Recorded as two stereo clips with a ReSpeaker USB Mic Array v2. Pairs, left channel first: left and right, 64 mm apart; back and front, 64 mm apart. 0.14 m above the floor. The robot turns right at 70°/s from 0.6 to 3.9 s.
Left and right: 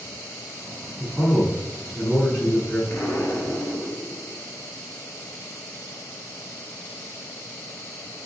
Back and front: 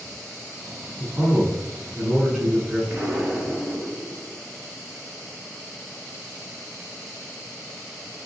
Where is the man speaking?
20° right, 1.2 m; by 2.8 s 105° left, 1.2 m.